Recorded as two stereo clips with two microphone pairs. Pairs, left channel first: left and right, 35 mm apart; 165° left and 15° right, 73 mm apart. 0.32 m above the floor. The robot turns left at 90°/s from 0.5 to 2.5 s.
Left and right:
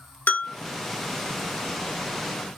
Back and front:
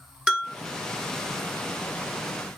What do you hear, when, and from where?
0.3 s a bell: 60° left, 0.6 m; by 0.6 s 55° left, 0.6 m